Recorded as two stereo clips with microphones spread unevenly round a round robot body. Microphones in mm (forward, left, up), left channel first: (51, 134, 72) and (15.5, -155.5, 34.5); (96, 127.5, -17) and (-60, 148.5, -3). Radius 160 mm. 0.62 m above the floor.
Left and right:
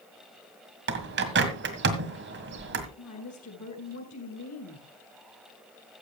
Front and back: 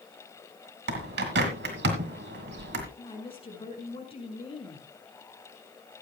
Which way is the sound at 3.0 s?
45° left.